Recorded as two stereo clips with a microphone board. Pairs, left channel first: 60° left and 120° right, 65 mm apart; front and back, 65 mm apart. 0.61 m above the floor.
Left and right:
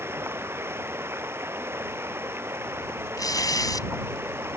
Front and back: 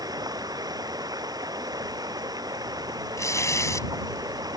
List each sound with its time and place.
0.0 s running water: 175° right
3.2 s tearing paper: 40° left